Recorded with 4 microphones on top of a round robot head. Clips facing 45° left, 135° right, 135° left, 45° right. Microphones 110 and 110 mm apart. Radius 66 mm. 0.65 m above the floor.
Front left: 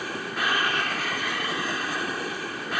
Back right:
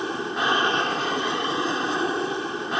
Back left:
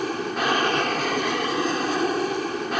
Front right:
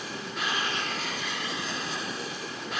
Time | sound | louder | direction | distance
0.0 | an aircraft | back right 4 dB, back left 10 dB | 160° left | ?